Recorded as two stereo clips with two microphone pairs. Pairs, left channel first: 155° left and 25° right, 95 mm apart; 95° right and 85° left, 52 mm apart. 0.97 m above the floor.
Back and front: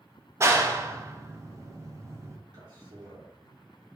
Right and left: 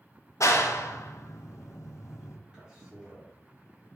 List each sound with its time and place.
0.4 s a clap: 85° right, 0.6 m
2.5 s a man speaking: 5° left, 2.5 m